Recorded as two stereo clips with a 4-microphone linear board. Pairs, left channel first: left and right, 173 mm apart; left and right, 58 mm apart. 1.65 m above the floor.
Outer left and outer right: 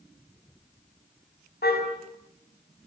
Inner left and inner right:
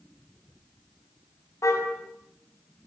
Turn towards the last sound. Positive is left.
turn(degrees=70)  # may be behind; listen again after turning